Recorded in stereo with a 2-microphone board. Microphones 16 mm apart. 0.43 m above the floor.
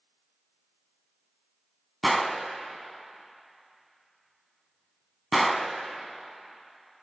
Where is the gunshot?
5° left (ahead or behind), 0.9 m.